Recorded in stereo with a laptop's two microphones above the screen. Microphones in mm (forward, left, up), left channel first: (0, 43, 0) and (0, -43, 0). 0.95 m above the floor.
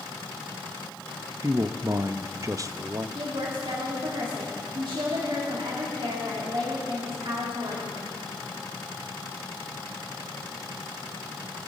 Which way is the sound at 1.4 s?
35° right (ahead or behind).